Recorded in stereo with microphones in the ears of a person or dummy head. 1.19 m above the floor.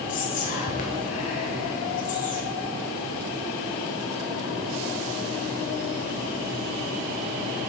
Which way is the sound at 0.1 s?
40° left (ahead or behind).